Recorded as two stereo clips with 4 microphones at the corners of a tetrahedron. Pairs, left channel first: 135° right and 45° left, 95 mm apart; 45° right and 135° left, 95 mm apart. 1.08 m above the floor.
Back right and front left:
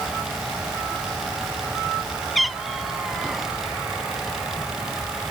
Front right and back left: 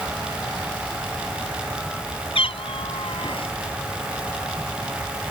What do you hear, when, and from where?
2.4 s a cat meowing: 45° right; by 3.5 s 40° right